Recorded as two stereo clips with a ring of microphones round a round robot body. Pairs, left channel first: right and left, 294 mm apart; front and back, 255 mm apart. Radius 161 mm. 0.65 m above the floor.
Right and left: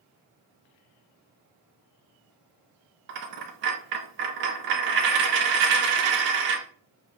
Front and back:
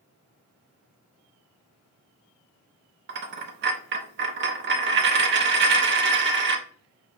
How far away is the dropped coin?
About 0.6 m.